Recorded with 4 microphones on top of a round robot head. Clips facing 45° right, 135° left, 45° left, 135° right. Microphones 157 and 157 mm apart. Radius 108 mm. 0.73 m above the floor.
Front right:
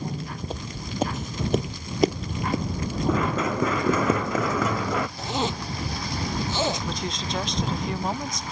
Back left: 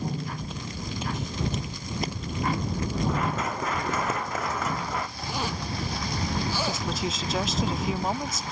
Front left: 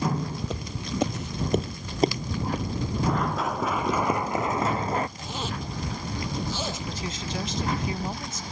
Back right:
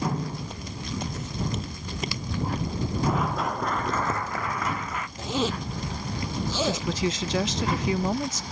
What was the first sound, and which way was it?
Footsteps, 20° left.